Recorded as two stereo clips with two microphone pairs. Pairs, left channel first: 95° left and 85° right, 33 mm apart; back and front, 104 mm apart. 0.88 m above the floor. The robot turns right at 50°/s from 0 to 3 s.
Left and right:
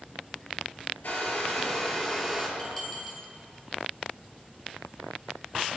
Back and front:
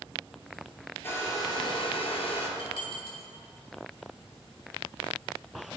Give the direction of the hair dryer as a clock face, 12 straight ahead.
8 o'clock.